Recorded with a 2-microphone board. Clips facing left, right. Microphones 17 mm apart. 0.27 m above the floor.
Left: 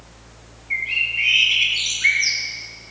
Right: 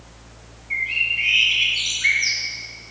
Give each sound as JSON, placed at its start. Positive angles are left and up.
{"t": 0.7, "sound": "a bird", "side_deg": 15, "distance_m": 1.4}